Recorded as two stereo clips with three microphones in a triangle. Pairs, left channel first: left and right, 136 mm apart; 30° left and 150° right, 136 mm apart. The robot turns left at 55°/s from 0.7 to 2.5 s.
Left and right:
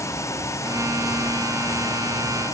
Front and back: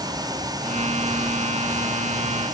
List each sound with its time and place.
Only background noise.